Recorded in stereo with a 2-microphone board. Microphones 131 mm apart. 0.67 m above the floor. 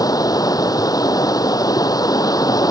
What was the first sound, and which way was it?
Running water, 30° left (ahead or behind).